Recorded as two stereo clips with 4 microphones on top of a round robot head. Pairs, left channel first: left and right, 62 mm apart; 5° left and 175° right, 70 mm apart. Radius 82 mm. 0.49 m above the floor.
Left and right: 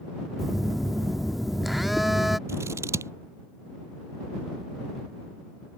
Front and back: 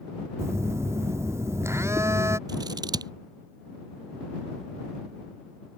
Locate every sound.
0.4 s a phone buzzing: straight behind
2.5 s scissors: 140° right